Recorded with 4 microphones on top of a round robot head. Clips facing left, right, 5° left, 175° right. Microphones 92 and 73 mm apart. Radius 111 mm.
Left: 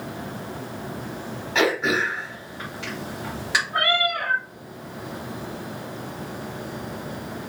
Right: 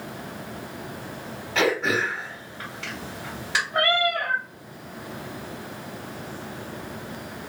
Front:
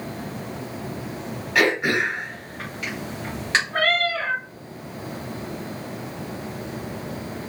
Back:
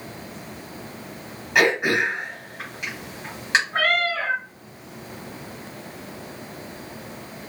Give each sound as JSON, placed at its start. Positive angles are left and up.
{"t": 1.6, "sound": "throat clearing", "azimuth_deg": 120, "distance_m": 1.5}
{"t": 3.7, "sound": "a cat meowing", "azimuth_deg": 105, "distance_m": 1.2}